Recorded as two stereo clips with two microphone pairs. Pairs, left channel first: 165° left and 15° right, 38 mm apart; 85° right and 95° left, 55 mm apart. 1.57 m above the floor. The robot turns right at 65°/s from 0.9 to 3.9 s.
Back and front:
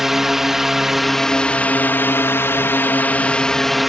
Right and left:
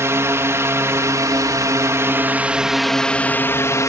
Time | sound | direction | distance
0.0 | a drone | 60° left | ?